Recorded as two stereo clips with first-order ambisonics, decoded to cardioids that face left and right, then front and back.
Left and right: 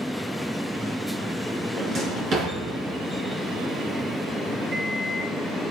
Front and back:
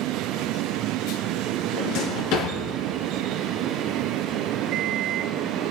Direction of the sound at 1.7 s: 30° right.